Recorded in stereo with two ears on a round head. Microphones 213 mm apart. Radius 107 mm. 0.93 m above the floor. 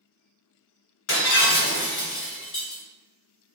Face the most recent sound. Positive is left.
turn(degrees=65)  # may be behind; listen again after turning